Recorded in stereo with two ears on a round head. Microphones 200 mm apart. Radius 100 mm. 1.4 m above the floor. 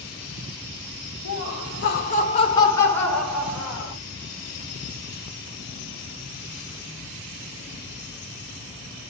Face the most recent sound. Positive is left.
turn(degrees=-5)  # may be behind; listen again after turning